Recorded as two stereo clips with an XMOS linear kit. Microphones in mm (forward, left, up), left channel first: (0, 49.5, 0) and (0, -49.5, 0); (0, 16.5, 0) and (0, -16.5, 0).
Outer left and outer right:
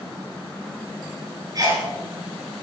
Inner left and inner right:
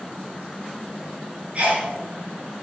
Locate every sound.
1.6 s a sneeze: 35° right (ahead or behind), 3.5 m